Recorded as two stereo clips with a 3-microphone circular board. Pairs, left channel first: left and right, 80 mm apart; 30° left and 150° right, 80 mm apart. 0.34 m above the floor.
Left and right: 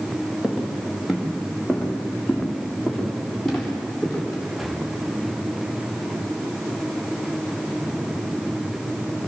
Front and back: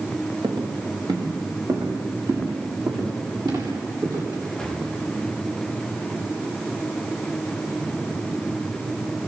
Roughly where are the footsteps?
Behind.